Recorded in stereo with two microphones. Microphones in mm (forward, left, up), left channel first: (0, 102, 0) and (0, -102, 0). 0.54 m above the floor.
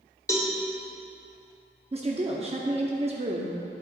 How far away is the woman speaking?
About 0.7 m.